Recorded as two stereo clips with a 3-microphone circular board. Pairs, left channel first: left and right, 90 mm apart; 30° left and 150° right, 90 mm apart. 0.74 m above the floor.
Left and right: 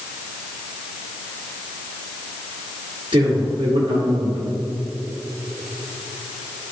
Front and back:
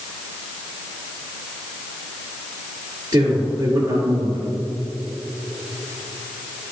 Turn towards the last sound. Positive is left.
turn(degrees=-100)